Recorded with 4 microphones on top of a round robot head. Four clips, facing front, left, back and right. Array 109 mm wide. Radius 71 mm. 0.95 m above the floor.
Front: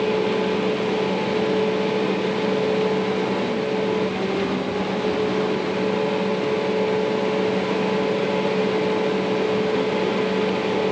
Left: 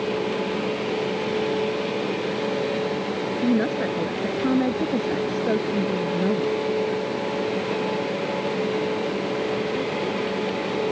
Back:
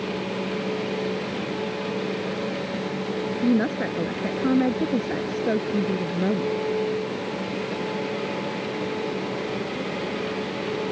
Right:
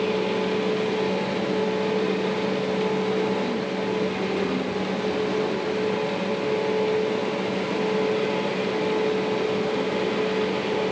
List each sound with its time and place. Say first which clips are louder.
3.4 s a woman speaking: left 4 dB, even; 140° left